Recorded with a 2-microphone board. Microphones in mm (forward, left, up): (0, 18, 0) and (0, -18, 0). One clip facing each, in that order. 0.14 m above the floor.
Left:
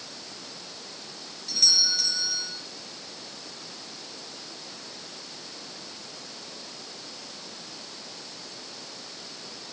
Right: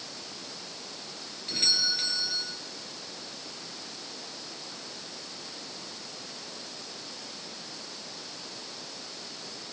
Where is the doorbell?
40° right (ahead or behind), 5.5 m.